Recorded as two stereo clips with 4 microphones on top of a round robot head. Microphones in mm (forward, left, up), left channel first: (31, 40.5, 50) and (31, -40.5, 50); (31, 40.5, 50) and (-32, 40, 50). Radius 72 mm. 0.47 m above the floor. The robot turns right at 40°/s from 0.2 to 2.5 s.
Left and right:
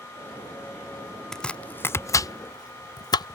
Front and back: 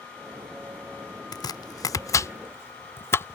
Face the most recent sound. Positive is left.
turn(degrees=55)